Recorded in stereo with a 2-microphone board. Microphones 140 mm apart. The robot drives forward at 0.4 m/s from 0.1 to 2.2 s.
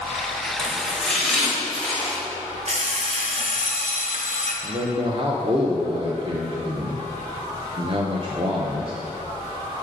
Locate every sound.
0.6 s chopping: 5° left (ahead or behind), 1.2 m
2.7 s an alarm clock: 55° right (ahead or behind), 0.7 m
4.6 s a man speaking: 40° right (ahead or behind), 0.5 m